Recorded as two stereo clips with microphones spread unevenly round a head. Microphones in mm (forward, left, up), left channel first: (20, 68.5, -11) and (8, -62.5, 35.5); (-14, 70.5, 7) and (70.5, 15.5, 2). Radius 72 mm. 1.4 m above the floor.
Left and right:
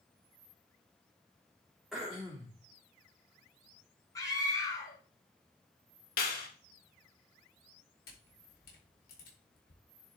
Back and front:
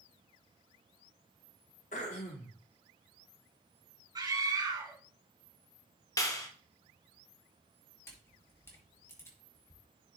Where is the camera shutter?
80° left, 4 m.